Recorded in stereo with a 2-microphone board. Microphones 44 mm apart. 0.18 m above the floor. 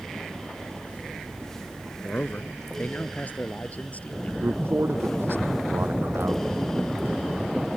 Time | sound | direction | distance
2.0 | a man speaking | 40° left (ahead or behind) | ?
4.4 | a man speaking | 65° right (ahead or behind) | ?